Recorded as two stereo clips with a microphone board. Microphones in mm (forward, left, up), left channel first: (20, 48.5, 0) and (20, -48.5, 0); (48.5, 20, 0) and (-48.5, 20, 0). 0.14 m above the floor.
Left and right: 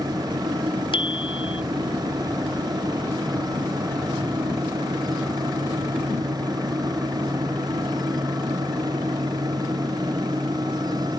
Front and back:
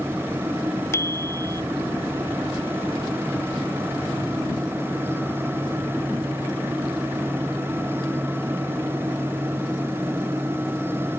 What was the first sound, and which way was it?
A bicycle bell, 65° left.